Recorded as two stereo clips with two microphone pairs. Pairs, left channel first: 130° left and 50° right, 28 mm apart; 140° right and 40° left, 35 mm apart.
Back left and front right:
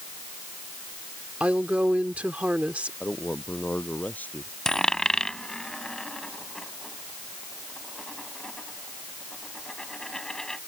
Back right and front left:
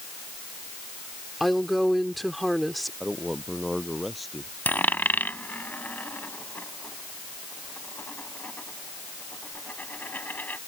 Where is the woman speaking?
50° right.